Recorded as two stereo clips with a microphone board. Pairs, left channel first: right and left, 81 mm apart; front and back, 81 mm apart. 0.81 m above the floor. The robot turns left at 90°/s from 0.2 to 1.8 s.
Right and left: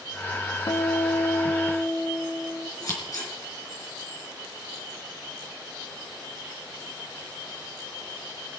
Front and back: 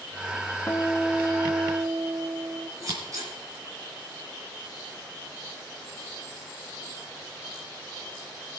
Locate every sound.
0.7 s a guitar: 60° right, 0.9 m; by 2.7 s 160° right, 0.9 m
2.8 s scissors: 135° right, 4 m